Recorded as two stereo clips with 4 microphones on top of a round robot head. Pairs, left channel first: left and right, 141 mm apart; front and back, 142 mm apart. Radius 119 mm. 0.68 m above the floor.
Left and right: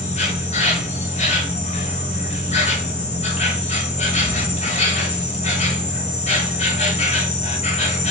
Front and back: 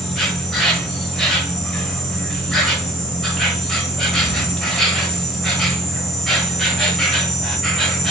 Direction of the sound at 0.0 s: 90° left.